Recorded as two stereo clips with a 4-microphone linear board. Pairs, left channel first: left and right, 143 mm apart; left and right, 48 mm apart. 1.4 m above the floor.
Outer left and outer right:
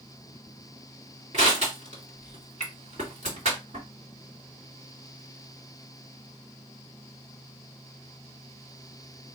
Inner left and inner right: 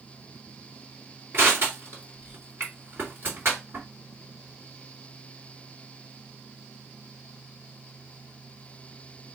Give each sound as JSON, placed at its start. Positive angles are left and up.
{"t": 1.3, "sound": "crushing", "side_deg": -55, "distance_m": 2.0}